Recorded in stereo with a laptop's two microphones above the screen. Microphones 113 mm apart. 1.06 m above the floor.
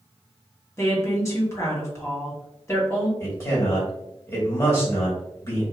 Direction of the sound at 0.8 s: 25° left (ahead or behind).